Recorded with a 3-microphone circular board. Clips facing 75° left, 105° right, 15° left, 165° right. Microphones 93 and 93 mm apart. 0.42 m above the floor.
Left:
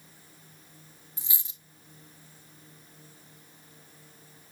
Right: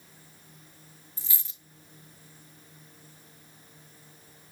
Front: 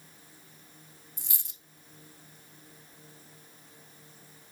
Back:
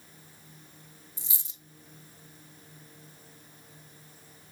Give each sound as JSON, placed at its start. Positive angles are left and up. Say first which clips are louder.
{"t": 1.2, "sound": "a dropped coin", "louder": "left 1 dB, even", "azimuth_deg": 5, "distance_m": 0.7}